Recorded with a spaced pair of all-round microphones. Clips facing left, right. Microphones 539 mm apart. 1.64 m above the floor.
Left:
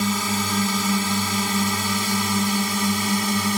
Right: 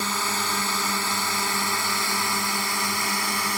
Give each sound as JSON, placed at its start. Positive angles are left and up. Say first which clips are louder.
{"t": 0.0, "sound": "a drone", "louder": "left 8 dB", "side_deg": 50}